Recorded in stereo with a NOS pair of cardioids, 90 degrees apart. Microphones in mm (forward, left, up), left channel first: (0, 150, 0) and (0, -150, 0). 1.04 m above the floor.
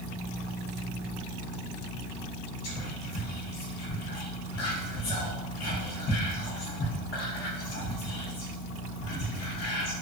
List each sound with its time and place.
2.6 s whispering: 55° left, 0.9 m